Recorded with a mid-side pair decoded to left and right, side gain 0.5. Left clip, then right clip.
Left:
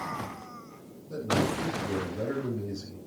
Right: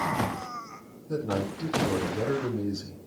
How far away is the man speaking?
About 7 m.